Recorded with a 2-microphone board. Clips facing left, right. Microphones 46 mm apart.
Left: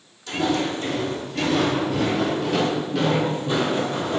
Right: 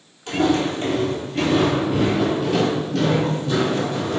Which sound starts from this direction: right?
Footsteps, at 0.3 s.